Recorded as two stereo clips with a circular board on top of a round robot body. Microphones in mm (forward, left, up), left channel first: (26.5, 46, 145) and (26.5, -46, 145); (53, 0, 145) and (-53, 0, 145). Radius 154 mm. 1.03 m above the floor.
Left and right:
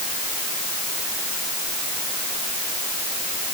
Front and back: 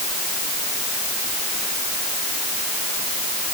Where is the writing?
No writing in this recording.